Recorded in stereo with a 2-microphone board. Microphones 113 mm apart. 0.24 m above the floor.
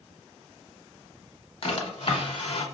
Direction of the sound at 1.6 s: 55° left (ahead or behind).